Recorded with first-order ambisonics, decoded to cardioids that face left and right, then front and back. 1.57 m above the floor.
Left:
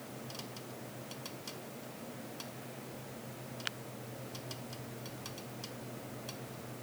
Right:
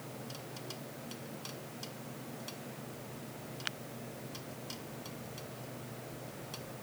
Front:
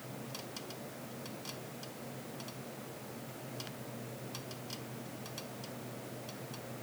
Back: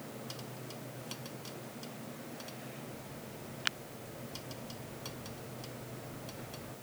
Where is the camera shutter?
I don't hear a camera shutter.